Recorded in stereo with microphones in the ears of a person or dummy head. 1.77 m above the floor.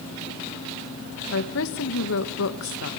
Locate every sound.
1.3 s a woman speaking: 70° left (ahead or behind), 1.6 m